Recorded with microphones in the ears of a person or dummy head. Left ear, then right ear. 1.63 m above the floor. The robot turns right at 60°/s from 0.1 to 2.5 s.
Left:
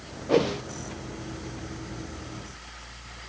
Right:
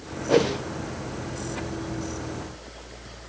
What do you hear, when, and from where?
0.3 s a whoosh: 5° right (ahead or behind), 0.5 m; by 0.6 s 5° left (ahead or behind), 0.5 m